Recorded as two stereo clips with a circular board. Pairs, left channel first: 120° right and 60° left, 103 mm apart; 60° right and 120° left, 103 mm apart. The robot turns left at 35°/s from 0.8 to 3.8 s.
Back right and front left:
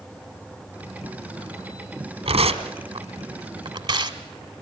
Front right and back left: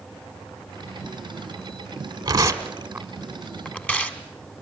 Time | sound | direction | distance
2.2 | tearing paper | 70° left | 1.5 m